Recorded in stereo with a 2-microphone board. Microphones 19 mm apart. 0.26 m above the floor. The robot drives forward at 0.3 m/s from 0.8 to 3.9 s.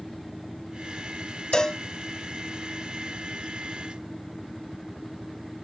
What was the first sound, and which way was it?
A cowbell, 45° left (ahead or behind).